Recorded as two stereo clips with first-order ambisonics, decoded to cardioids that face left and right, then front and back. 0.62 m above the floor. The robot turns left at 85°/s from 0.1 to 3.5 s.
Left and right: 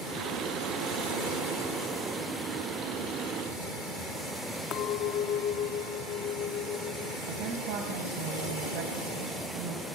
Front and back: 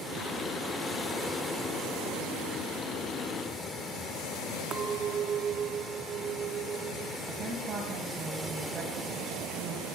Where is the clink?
125° left, 0.6 m.